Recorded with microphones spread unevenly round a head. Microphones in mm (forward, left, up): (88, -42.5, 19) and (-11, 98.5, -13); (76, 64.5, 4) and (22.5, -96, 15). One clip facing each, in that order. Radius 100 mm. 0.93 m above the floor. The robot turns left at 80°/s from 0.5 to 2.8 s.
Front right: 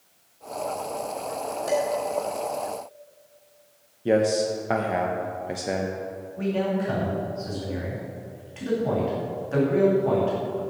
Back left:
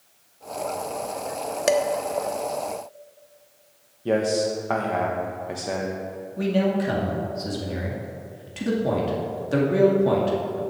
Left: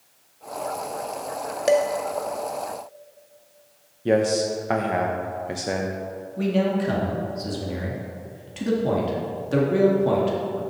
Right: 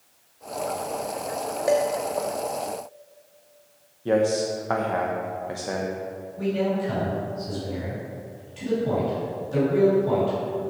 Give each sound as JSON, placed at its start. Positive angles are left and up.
{"t": 1.7, "sound": "dishes clattering", "azimuth_deg": 140, "distance_m": 0.7}
{"t": 4.0, "sound": "a man speaking", "azimuth_deg": 30, "distance_m": 0.8}
{"t": 6.4, "sound": "a man speaking", "azimuth_deg": 85, "distance_m": 2.0}